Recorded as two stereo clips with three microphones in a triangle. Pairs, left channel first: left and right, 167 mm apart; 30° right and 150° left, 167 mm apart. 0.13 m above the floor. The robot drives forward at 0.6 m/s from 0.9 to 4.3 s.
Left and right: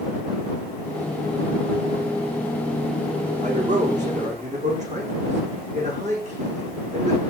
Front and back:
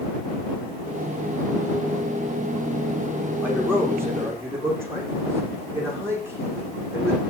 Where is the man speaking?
130° right, 8.5 m; by 7.2 s 135° right, 9 m.